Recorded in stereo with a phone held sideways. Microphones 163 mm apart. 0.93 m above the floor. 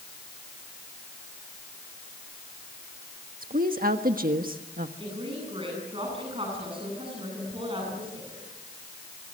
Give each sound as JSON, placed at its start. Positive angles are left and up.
{"t": 3.4, "sound": "a woman speaking", "side_deg": -60, "distance_m": 1.4}
{"t": 5.0, "sound": "a woman speaking", "side_deg": -35, "distance_m": 9.0}